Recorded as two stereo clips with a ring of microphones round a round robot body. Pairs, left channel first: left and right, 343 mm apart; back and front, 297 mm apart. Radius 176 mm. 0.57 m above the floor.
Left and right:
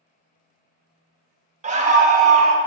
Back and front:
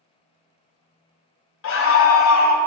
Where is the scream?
155° right, 0.9 m.